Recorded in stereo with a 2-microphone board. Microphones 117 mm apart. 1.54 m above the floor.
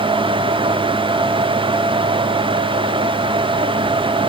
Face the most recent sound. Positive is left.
No sound to turn to.